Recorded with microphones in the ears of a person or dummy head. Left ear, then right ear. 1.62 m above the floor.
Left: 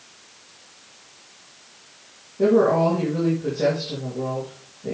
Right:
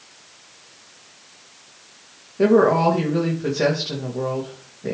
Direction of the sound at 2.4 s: 80° right.